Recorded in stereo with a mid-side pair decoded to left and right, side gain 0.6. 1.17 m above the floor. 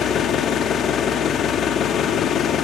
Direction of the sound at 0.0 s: 50° left.